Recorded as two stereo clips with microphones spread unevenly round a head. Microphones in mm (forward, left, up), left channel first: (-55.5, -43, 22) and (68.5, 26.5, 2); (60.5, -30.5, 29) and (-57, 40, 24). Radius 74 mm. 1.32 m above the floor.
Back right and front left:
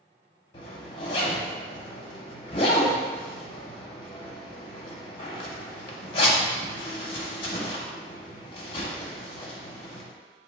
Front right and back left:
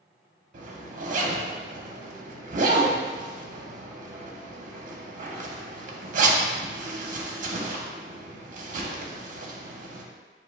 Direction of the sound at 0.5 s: 150° left.